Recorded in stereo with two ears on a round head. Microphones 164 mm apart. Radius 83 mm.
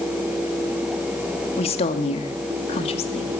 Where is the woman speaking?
30° left (ahead or behind), 2.5 m.